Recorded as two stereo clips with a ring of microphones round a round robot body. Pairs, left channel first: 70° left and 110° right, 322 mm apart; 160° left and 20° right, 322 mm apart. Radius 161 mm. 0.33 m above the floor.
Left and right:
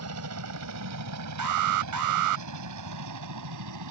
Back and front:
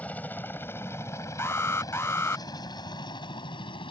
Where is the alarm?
120° right.